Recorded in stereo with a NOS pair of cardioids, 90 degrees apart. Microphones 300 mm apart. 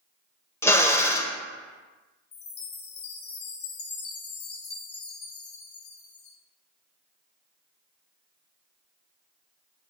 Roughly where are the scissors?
I don't hear scissors.